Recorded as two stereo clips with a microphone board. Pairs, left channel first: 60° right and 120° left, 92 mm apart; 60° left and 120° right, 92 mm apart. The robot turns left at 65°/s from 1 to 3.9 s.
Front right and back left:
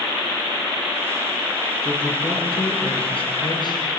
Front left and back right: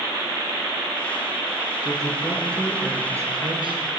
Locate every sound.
1.8 s a man speaking: 25° left, 5 m; by 3.8 s 105° right, 5 m